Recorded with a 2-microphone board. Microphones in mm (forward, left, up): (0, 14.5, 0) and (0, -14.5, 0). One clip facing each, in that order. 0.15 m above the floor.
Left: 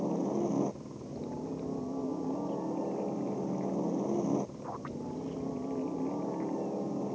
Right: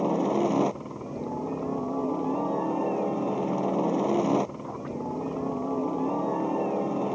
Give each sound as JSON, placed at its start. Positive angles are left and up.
{"t": 0.0, "sound": "a helicopter", "side_deg": -65}